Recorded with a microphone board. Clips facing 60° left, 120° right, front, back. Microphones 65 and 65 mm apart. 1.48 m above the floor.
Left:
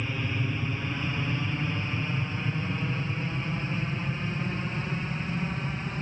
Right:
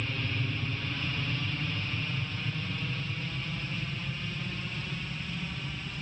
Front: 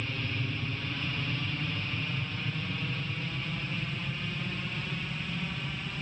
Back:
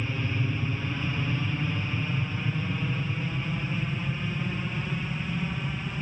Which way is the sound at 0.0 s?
120° left.